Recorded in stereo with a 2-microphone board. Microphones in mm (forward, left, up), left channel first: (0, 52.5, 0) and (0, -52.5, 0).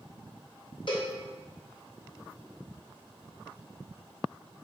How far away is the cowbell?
About 2.5 m.